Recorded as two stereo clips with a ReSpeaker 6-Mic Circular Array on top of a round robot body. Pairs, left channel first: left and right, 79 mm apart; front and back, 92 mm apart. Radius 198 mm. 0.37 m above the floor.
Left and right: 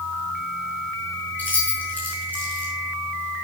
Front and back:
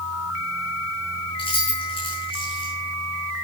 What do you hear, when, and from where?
1.4 s keys jangling: 20° left, 5.5 m